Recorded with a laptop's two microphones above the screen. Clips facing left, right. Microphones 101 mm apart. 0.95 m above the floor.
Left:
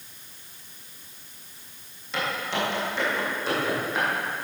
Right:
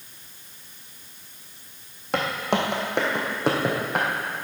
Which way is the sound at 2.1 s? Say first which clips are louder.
Right 4 dB; 60° right (ahead or behind).